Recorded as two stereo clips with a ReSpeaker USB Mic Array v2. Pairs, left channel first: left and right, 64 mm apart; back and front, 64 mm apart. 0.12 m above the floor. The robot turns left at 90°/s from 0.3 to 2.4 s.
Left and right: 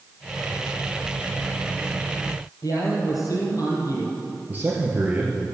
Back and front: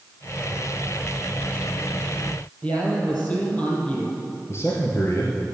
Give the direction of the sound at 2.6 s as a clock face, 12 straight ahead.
8 o'clock.